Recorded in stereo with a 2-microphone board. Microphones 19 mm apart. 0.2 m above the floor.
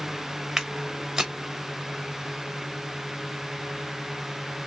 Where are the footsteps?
35° right (ahead or behind), 1.0 m.